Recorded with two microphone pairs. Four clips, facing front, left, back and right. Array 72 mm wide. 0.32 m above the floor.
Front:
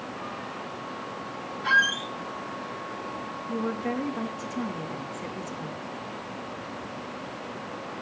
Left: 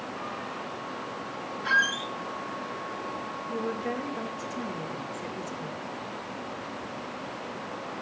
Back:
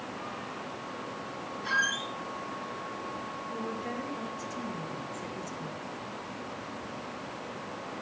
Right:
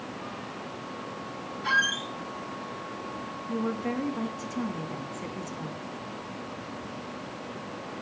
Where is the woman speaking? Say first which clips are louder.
Right 2 dB, front 8 dB; 35° right, 2.5 m.